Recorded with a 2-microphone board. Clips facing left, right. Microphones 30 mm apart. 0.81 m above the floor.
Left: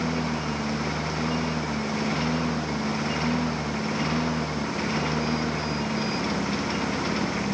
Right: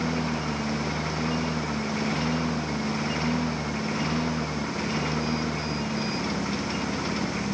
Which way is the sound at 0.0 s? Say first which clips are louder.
Even; centre (ahead or behind).